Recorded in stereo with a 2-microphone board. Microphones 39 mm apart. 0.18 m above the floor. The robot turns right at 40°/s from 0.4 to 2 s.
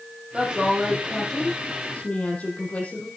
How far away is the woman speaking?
About 6 m.